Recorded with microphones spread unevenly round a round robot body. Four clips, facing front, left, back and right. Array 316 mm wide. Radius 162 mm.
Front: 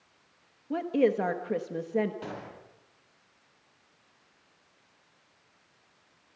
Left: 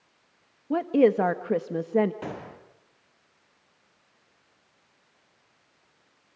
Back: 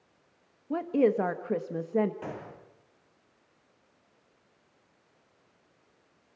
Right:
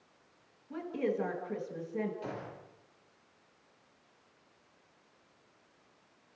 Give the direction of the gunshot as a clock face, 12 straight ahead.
9 o'clock.